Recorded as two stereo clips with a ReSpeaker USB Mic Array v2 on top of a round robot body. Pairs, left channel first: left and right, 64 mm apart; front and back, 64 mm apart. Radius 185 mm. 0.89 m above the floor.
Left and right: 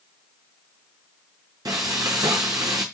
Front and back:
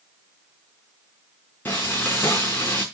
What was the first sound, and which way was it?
Frying, 60° right.